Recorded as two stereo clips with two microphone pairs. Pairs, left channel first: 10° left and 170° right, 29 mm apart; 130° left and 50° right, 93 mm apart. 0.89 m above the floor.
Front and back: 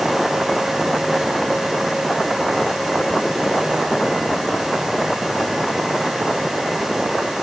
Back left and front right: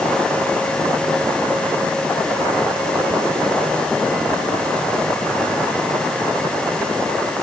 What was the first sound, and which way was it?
Only background noise.